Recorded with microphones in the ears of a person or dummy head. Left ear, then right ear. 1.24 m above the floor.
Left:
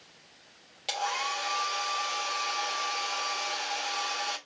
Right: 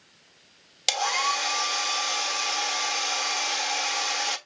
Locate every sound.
0.9 s a hair dryer: 75° right (ahead or behind), 1.2 m